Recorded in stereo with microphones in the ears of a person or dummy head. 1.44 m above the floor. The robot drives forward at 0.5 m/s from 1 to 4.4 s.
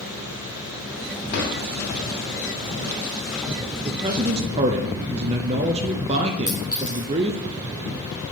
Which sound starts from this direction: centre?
A clink, at 6.5 s.